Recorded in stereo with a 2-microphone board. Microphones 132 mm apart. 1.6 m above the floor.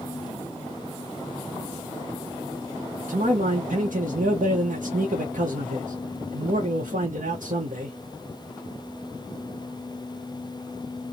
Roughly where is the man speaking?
Right.